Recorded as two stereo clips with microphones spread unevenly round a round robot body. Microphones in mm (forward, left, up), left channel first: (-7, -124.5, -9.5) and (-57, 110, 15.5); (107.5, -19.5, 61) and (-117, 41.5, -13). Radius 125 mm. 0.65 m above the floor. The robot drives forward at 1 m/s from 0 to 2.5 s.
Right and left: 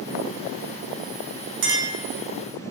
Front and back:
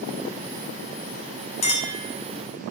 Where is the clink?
55° left, 1.0 m; by 2.0 s 80° left, 0.9 m.